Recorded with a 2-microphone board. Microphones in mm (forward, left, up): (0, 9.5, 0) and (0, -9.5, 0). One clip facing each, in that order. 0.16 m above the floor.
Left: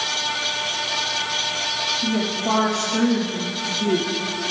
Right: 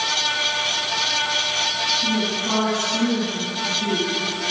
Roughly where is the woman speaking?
Left.